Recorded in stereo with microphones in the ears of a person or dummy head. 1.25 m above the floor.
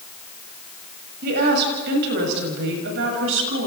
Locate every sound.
1.2 s a woman speaking: 60° right (ahead or behind), 7 m; by 3.7 s 80° right, 7.5 m